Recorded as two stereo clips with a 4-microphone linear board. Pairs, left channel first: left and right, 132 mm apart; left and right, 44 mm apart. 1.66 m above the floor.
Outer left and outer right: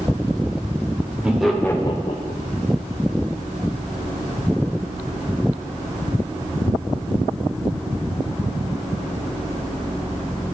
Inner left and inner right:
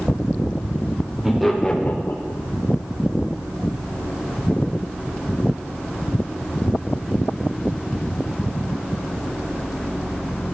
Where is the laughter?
10° right (ahead or behind), 0.8 m; by 2.4 s 80° left, 0.6 m.